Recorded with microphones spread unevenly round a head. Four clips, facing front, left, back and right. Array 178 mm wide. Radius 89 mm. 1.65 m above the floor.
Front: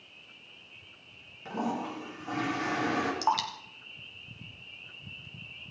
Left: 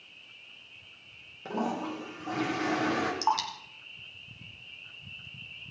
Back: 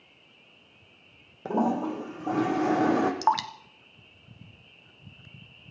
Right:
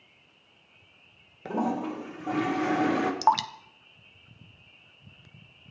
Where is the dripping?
85° right, 0.7 m.